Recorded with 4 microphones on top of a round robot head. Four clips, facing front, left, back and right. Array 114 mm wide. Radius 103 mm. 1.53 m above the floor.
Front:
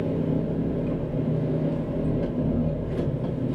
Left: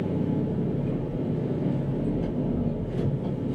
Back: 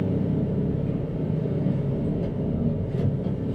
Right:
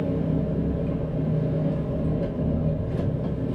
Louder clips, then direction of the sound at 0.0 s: Right 1 dB, even; 25° right.